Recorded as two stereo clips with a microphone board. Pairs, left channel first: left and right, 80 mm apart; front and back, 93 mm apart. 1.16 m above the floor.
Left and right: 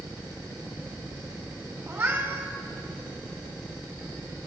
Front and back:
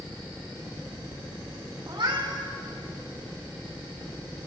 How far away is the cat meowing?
About 2.5 m.